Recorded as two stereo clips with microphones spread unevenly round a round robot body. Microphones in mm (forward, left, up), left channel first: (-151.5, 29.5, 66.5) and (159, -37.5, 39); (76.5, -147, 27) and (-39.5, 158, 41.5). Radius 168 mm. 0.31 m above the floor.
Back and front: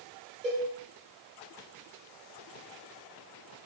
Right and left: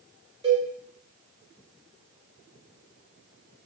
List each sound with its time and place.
0.4 s a cowbell: 40° left, 1.2 m